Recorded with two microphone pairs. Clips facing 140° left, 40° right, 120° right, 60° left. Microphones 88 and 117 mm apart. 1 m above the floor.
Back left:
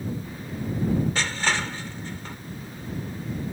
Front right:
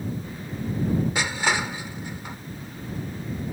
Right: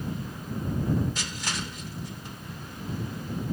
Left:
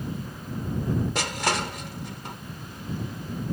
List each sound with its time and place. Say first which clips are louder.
1.1 s crushing: front right 1 dB, left 8 dB; 40° left